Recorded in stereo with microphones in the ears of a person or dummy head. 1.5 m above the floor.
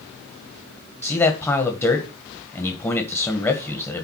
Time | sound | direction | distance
1.0 | a man speaking | 15° left (ahead or behind) | 1.7 m